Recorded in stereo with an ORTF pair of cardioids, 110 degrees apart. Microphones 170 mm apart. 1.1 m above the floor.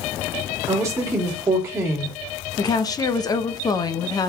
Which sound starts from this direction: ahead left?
A woman speaking, at 2.6 s.